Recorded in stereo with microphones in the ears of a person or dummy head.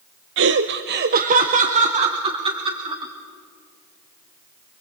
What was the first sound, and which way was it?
Laughter, 55° right (ahead or behind).